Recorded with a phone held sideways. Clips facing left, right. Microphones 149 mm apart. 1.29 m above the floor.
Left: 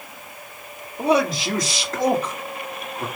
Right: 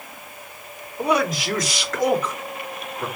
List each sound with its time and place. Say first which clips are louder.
1.0 s a man speaking: left 2 dB; 30° left (ahead or behind), 3.5 m